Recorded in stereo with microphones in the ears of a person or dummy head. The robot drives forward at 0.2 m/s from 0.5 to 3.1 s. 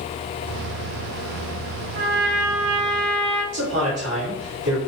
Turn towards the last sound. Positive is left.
turn(degrees=-65)  # may be behind; listen again after turning